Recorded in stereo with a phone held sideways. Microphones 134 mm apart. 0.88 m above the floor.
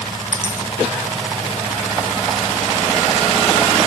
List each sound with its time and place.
0.3 s a dropped coin: 20° left (ahead or behind), 1.6 m